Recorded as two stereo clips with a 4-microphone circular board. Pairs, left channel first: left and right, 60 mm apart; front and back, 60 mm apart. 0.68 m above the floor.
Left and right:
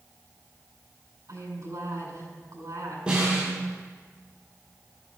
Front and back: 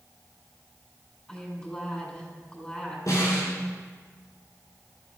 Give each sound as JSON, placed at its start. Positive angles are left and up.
{"t": 1.3, "sound": "a woman speaking", "azimuth_deg": -75, "distance_m": 6.0}
{"t": 3.1, "sound": "a snare drum", "azimuth_deg": -20, "distance_m": 6.0}